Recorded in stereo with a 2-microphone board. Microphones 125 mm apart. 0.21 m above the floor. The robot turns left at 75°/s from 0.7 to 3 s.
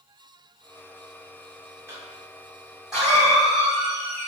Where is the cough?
20° right (ahead or behind), 1.5 m; by 4.3 s 5° right (ahead or behind), 1.5 m.